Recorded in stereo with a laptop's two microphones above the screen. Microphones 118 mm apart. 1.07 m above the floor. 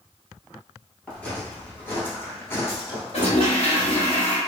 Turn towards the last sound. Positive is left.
turn(degrees=55)  # may be behind; listen again after turning